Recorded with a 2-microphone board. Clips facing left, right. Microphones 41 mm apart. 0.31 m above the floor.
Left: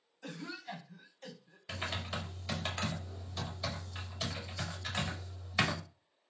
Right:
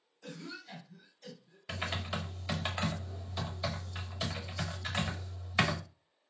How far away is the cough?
About 1.7 m.